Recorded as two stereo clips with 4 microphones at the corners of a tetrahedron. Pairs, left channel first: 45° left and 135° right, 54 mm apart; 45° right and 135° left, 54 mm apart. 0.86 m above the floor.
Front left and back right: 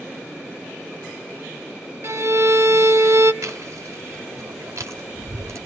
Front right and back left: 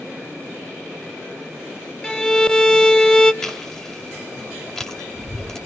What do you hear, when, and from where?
2.0 s a violin: 120° right, 0.9 m
3.4 s chewing: 120° right, 2.5 m